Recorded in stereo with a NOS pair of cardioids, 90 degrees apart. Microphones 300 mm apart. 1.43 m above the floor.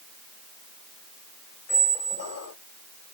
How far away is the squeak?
About 0.8 m.